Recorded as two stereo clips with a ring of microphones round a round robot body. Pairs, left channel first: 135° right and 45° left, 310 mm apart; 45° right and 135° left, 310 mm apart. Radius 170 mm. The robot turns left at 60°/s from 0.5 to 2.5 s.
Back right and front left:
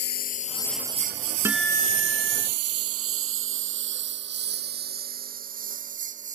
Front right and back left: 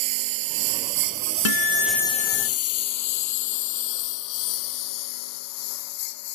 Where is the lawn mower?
165° left; by 6.3 s 25° right.